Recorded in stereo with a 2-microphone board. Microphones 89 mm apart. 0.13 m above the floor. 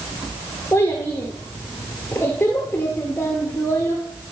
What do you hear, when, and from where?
0.7 s a child speaking: 25° left (ahead or behind), 2 m